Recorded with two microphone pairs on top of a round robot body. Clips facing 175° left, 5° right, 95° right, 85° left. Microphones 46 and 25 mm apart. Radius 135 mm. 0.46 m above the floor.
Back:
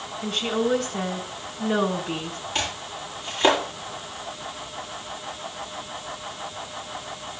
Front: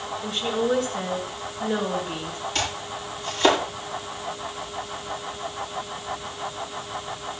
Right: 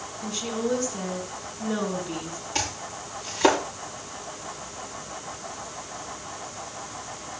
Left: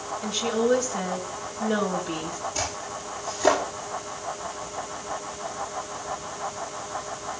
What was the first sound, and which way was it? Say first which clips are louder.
A woman speaking: back 1 dB, left 4 dB; 160° left.